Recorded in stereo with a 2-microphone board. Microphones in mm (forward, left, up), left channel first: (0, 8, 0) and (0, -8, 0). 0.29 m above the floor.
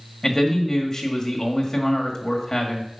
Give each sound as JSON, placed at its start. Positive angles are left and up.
{"t": 0.2, "sound": "a man speaking", "side_deg": 20, "distance_m": 1.5}